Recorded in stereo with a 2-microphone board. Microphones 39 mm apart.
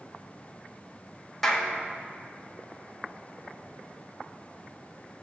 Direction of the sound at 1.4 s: 5° left (ahead or behind).